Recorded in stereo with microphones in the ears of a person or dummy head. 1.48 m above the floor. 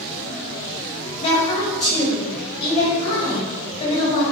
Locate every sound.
1.2 s a woman speaking: 30° left (ahead or behind), 1.2 m